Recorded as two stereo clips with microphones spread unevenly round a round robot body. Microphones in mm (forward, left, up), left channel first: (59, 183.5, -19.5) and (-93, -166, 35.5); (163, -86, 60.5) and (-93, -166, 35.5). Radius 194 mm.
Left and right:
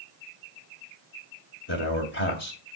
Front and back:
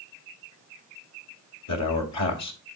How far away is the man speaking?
About 2.5 m.